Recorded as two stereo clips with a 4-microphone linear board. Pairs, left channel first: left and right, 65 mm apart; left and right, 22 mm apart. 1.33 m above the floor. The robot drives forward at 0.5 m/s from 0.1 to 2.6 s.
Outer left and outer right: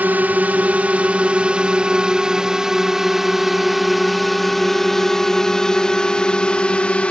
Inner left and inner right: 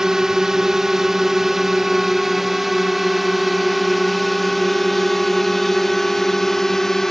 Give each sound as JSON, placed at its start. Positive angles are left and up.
{"t": 0.0, "sound": "a drone", "side_deg": -30}